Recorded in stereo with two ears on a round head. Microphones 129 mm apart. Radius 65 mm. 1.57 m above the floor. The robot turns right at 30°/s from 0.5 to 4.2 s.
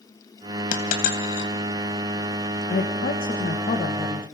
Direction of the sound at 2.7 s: 95° left.